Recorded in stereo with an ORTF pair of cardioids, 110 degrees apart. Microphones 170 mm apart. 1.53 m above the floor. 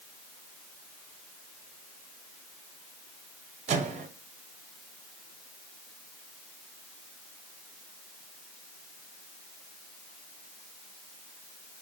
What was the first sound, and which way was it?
A microwave, 45° right.